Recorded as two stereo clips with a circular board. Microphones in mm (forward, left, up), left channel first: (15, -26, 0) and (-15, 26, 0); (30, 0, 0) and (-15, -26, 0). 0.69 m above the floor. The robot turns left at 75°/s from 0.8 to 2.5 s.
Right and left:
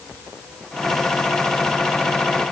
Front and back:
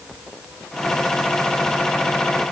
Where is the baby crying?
No baby crying in this recording.